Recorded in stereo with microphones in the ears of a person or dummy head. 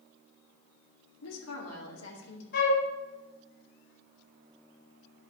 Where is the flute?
60° left (ahead or behind), 2 m.